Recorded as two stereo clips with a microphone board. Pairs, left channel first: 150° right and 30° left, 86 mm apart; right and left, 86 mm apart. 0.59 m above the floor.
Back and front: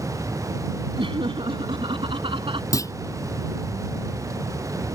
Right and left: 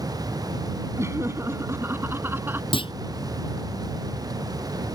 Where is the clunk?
100° right.